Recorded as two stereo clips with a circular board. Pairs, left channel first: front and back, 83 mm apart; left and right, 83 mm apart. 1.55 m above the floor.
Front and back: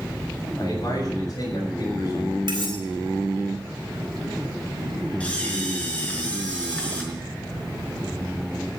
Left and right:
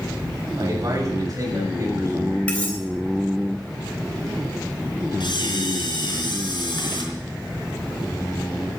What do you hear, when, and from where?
0.6 s a man speaking: 50° right, 7.5 m; by 2.4 s 30° right, 7 m
2.5 s cutlery clinking: 165° left, 4 m
5.2 s a camera shutter: 75° left, 5 m